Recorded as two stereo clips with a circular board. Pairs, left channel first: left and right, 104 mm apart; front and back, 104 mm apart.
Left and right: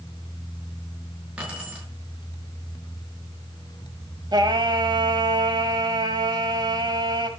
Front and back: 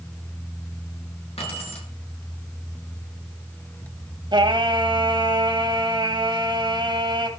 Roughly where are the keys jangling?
Ahead.